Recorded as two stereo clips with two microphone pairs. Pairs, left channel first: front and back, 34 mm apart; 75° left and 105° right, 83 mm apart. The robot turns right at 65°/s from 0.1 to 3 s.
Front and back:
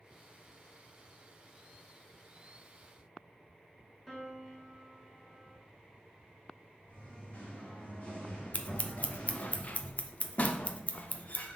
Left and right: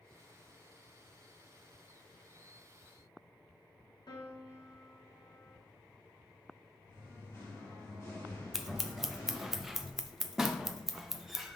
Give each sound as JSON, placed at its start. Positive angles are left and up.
{"t": 4.1, "sound": "a piano", "azimuth_deg": 80, "distance_m": 1.2}
{"t": 6.9, "sound": "singing", "azimuth_deg": 30, "distance_m": 2.5}
{"t": 8.5, "sound": "scissors", "azimuth_deg": -15, "distance_m": 0.6}